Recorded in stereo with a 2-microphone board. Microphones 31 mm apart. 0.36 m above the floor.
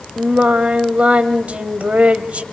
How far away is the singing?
About 1.7 m.